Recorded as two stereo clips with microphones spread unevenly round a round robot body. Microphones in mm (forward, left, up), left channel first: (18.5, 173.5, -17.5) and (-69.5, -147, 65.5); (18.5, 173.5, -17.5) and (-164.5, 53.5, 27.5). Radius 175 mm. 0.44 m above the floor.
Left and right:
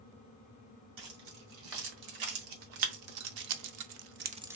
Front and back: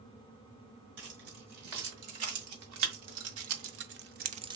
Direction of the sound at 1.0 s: 120° right.